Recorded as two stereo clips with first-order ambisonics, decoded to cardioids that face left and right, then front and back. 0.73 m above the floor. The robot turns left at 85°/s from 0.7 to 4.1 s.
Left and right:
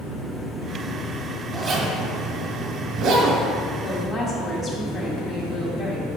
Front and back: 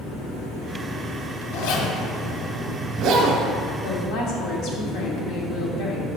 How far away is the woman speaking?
About 1.2 m.